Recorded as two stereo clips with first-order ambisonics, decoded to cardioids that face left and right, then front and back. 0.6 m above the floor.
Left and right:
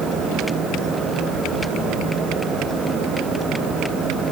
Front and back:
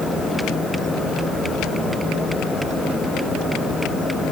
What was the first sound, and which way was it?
Only background noise.